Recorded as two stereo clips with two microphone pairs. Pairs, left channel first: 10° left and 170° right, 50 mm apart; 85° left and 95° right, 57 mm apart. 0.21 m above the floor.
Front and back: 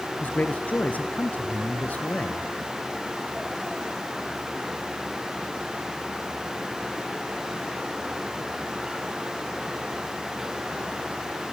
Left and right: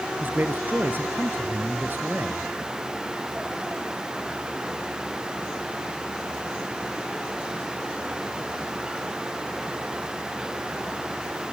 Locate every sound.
0.2 s a man speaking: 45° right, 3 m